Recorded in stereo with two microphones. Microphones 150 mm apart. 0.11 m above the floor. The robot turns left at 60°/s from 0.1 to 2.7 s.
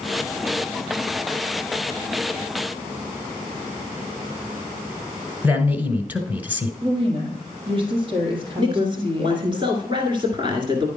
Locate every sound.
5.4 s a man speaking: 10° right (ahead or behind), 1.3 m
6.8 s a woman speaking: 35° right (ahead or behind), 3 m
8.6 s a man speaking: 30° right (ahead or behind), 1.5 m